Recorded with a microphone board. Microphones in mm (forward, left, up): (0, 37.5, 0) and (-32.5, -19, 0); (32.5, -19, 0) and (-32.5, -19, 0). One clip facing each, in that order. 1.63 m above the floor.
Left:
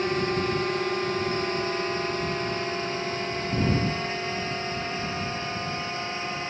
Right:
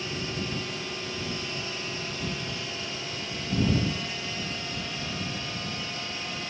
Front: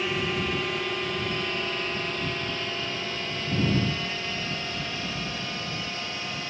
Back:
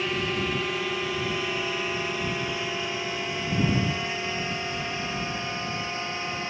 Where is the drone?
90° left; by 6.5 s 115° left.